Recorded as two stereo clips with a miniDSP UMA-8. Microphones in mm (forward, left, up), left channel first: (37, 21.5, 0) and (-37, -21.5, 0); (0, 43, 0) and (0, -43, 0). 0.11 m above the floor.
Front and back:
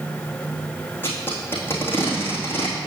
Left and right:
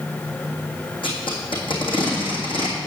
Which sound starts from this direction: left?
Tape being pulled, at 1.0 s.